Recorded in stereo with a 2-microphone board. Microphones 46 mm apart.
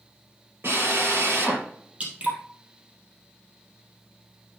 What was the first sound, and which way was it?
A drill, 55° right (ahead or behind).